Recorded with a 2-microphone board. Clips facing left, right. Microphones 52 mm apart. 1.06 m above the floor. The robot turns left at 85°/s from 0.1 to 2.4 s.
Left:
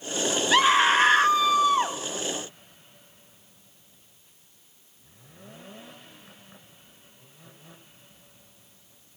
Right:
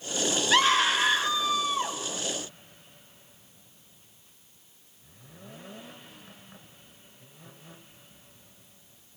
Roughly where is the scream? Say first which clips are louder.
Left 4 dB; behind.